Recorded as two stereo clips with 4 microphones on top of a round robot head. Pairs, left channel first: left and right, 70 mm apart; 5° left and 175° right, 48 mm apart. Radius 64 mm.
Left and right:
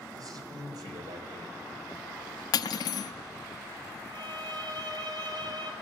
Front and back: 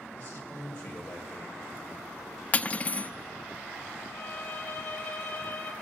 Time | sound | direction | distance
0.1 | a man speaking | 65° right | 3.5 m
2.5 | cutlery clinking | 65° left | 0.5 m
4.1 | a violin | 65° right | 2.5 m